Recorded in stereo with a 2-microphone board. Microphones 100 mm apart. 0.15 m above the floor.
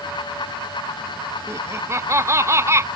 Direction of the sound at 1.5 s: 30° right (ahead or behind).